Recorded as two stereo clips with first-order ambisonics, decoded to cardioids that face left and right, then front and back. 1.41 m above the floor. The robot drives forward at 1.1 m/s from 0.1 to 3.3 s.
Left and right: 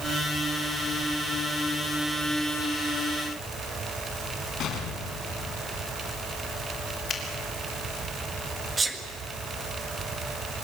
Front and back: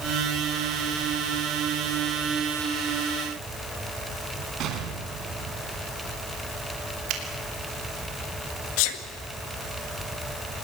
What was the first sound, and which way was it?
An explosion, 135° left.